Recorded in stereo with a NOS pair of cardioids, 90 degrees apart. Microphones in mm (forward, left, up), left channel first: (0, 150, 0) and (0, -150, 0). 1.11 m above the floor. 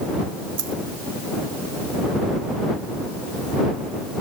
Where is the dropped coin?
55° right.